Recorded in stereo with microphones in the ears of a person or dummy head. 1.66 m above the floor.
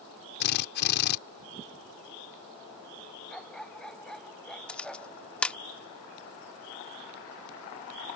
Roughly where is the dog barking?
Centre.